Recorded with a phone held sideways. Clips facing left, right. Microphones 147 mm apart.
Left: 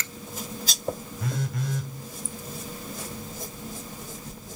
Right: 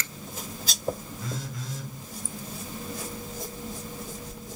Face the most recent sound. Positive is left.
turn(degrees=65)  # may be behind; listen again after turning